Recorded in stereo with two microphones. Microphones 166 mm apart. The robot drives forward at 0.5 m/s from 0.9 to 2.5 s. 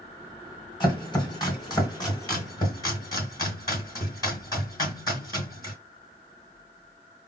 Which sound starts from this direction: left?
Chopping, at 0.8 s.